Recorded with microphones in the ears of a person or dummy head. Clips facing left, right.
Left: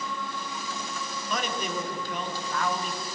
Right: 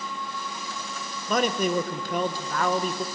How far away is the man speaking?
About 0.7 m.